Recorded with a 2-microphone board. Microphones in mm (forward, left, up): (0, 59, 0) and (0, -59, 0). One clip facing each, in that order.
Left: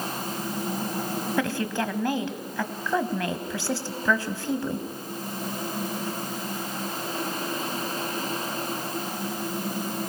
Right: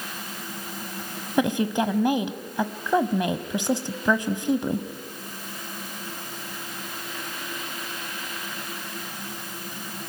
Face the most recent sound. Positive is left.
turn(degrees=-20)  # may be behind; listen again after turning